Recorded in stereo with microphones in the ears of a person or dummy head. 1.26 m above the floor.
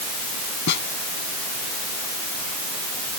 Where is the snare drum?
65° left (ahead or behind).